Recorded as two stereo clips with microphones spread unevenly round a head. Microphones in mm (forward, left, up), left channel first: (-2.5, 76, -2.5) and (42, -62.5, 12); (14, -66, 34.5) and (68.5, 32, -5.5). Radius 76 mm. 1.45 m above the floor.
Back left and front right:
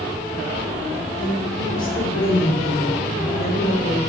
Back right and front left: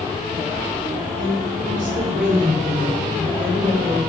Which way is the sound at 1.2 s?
75° left.